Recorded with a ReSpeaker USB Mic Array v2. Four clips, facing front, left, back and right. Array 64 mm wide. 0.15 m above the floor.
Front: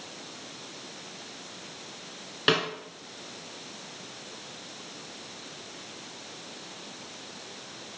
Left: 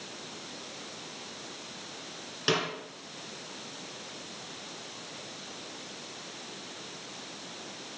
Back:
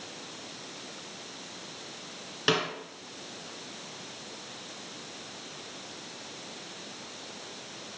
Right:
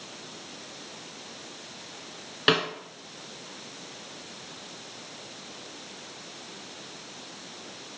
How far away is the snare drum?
About 1.3 m.